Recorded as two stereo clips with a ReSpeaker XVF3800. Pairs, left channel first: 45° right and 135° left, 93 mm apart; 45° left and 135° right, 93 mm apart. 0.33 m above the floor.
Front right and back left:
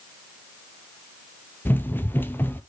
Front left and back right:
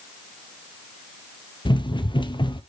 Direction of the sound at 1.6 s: 20° left.